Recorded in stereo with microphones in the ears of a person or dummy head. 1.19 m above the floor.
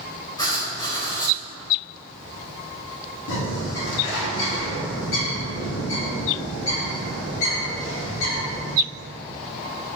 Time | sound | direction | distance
0.4 | writing | 20° left (ahead or behind) | 2.5 m
3.3 | a bird | 70° left (ahead or behind) | 3 m